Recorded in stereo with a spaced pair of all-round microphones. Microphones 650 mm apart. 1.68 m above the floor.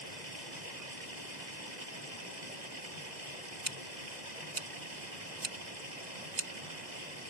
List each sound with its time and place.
0.0 s running water: 85° right
3.6 s scissors: 80° right